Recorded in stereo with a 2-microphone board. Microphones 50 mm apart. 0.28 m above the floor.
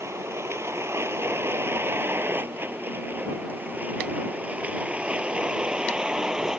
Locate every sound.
0.0 s a vehicle: 70° right (ahead or behind); by 6.6 s 15° right (ahead or behind)